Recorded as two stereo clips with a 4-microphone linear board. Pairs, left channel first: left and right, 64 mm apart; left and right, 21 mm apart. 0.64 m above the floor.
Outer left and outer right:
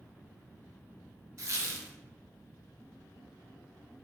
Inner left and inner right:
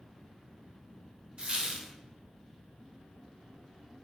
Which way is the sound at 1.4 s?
50° right (ahead or behind).